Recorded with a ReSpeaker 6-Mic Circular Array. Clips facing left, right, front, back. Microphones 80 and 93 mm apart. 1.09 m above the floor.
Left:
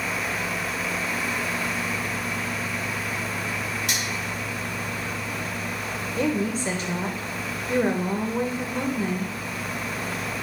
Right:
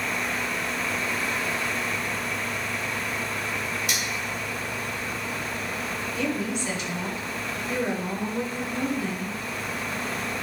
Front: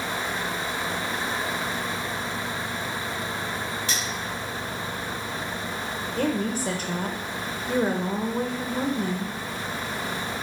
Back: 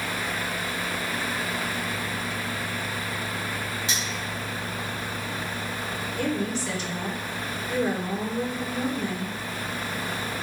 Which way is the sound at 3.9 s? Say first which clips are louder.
Left 1 dB, front 1 dB; 110° left.